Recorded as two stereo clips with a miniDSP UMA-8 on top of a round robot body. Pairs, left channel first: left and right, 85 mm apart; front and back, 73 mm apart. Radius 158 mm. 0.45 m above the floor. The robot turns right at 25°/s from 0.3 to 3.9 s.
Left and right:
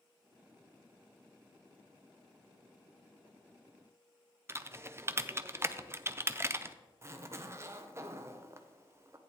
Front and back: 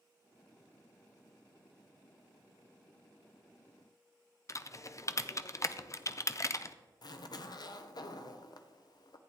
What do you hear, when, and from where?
4.5 s typing on a keyboard: 35° right, 0.7 m
7.0 s a zipper: 30° right, 0.7 m